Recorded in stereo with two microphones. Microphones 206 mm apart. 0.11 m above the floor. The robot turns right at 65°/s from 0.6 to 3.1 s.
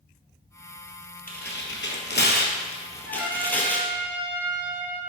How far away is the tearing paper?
About 0.7 m.